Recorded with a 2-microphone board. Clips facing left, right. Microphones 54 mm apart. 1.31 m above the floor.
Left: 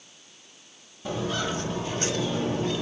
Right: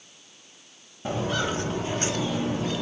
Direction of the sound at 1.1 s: 30° right (ahead or behind).